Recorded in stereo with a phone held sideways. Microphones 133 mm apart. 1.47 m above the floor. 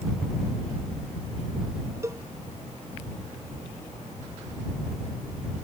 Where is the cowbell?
20° right (ahead or behind).